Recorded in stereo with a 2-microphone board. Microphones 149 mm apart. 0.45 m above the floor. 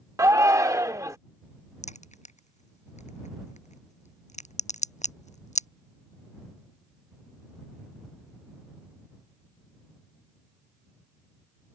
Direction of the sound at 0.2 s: 20° right (ahead or behind).